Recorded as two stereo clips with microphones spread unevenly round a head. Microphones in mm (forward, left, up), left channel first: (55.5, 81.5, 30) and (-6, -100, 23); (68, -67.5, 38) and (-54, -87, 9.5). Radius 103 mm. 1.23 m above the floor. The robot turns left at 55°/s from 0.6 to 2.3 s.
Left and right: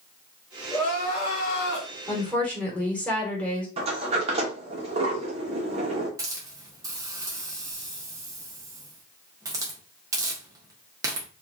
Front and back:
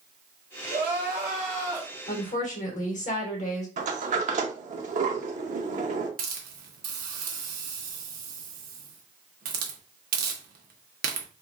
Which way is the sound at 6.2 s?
175° left.